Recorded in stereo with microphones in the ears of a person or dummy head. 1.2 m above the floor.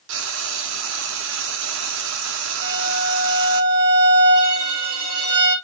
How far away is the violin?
About 4 m.